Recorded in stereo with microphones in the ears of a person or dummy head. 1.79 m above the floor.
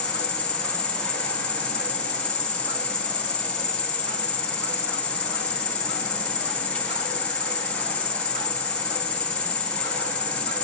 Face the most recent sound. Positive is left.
turn(degrees=10)  # may be behind; listen again after turning